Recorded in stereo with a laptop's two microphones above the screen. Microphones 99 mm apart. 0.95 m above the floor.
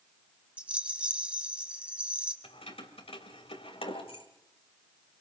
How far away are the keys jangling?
About 2.5 m.